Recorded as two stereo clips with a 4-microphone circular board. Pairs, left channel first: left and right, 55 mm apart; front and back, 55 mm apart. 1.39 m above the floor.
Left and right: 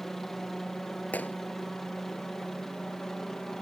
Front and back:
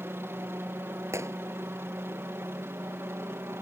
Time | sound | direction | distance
0.0 | a helicopter | 175° left | ?
1.1 | a gunshot | 150° left | ?